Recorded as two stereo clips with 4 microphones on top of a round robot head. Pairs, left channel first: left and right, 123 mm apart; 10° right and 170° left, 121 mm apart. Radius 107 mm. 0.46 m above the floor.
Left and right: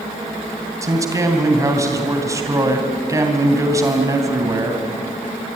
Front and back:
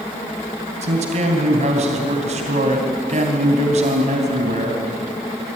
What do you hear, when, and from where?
0.8 s a man speaking: 155° right, 3 m